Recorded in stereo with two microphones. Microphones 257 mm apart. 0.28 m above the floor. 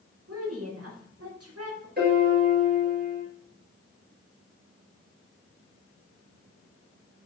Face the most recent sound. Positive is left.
turn(degrees=-40)  # may be behind; listen again after turning